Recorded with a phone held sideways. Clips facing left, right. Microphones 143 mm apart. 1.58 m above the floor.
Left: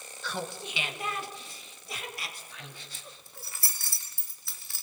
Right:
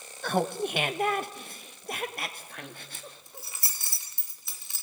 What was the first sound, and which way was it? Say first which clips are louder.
Laughter: right 9 dB; 55° right (ahead or behind).